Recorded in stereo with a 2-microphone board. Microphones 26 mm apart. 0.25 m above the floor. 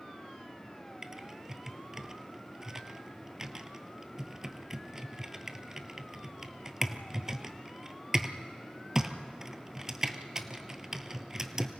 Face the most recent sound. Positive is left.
turn(degrees=-25)  # may be behind; listen again after turning